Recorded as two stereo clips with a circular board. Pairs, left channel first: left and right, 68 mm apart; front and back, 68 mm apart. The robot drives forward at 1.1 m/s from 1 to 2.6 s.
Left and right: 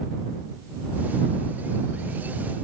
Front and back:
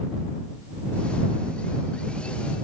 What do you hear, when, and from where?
Only background noise.